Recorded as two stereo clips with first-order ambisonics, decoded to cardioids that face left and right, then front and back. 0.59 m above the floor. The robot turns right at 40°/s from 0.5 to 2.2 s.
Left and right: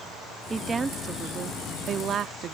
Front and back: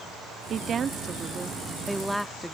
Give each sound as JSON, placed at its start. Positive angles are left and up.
{"t": 0.5, "sound": "a woman speaking", "azimuth_deg": -155}